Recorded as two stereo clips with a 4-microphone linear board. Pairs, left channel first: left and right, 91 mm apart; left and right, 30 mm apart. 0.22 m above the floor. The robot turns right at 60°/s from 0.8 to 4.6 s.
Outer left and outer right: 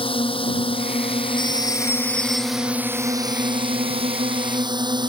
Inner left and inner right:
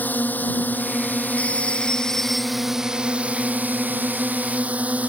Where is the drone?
80° left; by 5.1 s 55° right.